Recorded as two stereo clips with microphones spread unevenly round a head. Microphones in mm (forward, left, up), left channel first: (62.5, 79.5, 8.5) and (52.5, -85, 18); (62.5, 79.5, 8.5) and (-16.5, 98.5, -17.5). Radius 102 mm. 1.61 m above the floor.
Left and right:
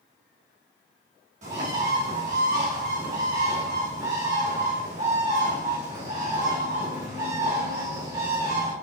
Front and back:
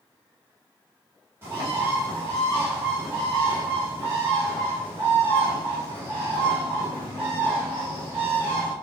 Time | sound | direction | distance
1.4 | a bird | 115° right | 1.5 m